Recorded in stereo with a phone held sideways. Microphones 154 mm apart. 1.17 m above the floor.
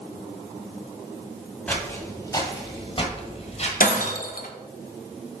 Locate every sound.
1.7 s footsteps: 10° left (ahead or behind), 1.4 m; by 3.7 s 45° left (ahead or behind), 1.6 m
3.8 s breaking glass: 70° left (ahead or behind), 0.8 m